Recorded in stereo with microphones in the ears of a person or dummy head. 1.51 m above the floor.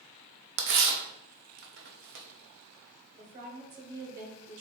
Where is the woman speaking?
50° right (ahead or behind), 1.9 m.